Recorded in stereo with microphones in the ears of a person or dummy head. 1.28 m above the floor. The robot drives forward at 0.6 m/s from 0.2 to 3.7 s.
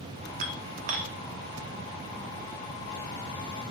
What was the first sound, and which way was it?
Dishes clattering, 45° right (ahead or behind).